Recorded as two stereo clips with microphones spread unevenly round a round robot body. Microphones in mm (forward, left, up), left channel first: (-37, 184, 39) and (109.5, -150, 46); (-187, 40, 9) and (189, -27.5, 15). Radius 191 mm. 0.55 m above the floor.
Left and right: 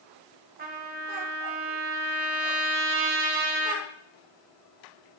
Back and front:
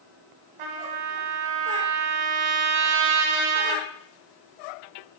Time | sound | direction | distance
0.6 | a trumpet | straight ahead | 1.2 m